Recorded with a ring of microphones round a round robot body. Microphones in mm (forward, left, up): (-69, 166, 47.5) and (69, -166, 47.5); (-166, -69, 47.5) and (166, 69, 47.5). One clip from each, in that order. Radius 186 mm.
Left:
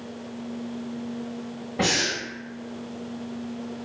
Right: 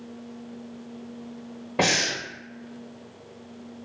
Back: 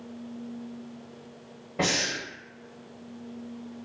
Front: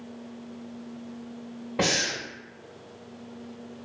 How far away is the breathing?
About 0.9 m.